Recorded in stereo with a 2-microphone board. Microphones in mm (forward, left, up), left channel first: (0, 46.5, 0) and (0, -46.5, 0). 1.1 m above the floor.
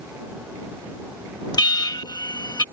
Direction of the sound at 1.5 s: 50° left (ahead or behind).